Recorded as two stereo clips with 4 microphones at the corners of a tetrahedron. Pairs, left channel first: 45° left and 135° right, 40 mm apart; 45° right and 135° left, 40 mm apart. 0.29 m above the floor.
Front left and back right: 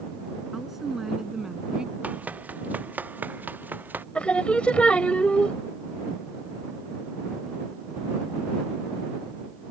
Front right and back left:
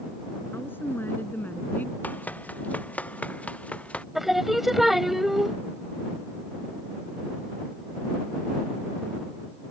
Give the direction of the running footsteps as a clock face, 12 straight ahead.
3 o'clock.